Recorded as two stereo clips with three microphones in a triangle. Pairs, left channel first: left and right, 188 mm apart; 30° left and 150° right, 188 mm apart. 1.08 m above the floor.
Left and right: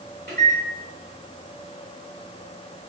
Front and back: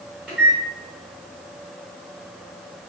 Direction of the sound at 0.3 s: 65° right.